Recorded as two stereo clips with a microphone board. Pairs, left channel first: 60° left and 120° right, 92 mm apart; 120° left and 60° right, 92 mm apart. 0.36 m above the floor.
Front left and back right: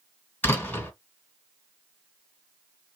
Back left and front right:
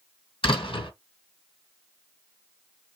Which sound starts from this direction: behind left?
A door slam, at 0.4 s.